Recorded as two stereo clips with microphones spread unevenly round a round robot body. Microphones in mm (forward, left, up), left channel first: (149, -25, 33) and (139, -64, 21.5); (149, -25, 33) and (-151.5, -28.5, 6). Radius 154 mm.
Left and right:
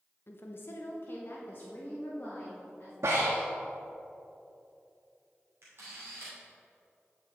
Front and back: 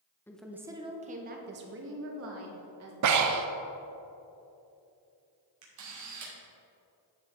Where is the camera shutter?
145° right, 2.5 m.